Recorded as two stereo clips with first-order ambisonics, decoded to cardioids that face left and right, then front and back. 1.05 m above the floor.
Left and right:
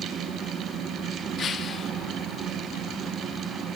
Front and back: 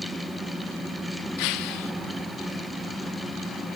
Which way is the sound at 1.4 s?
25° left.